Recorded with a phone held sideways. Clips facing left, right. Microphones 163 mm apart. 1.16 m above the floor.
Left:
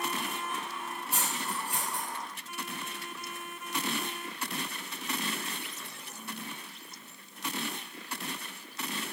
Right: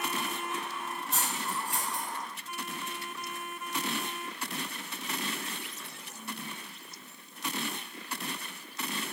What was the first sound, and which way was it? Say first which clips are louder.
Cutlery clinking: even; 5° left (ahead or behind).